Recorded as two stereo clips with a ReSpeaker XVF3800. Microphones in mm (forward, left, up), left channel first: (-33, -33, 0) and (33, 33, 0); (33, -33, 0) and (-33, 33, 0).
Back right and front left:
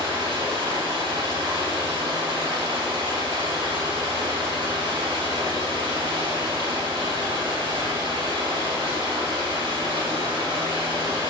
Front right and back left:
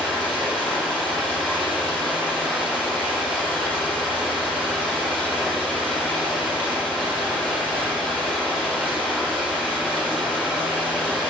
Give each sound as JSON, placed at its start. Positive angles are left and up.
{"t": 0.0, "sound": "running water", "azimuth_deg": 30, "distance_m": 3.5}